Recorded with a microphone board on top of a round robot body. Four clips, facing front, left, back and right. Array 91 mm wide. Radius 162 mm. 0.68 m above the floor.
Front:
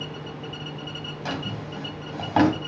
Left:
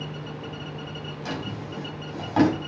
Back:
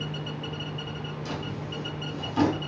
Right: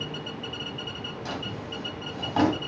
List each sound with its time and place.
1.2 s a drawer: 5° left, 3 m